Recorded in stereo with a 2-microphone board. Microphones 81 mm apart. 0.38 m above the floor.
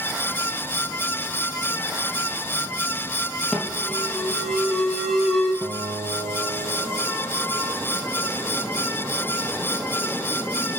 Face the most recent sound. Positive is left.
turn(degrees=-75)  # may be behind; listen again after turning